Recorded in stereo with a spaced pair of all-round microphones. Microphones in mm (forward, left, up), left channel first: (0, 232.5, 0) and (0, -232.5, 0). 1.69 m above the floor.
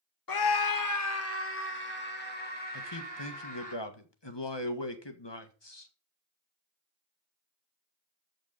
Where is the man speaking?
65° left (ahead or behind), 1.7 m.